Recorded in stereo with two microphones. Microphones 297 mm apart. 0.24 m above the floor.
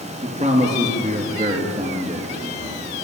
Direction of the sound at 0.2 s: 25° right (ahead or behind).